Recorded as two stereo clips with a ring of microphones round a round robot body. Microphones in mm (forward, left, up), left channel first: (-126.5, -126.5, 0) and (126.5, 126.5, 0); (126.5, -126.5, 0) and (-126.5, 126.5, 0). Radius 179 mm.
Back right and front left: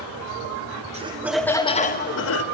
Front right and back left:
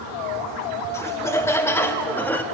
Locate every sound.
0.9 s laughter: 25° left, 0.8 m; by 2.4 s 125° right, 1.0 m